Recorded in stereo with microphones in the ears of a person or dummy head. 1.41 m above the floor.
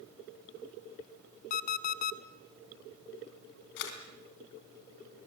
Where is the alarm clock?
45° left (ahead or behind), 1.0 m.